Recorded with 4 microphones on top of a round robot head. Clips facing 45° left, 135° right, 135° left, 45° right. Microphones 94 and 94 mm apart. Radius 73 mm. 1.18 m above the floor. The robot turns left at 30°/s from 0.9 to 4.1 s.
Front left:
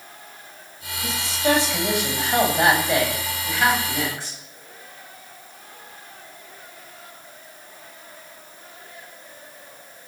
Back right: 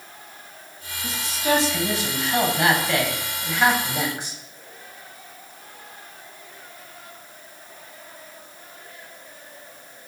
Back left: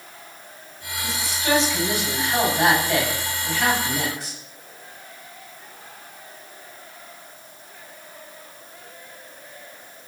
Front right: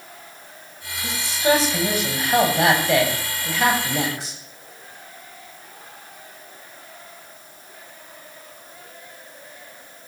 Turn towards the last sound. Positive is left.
turn(degrees=-60)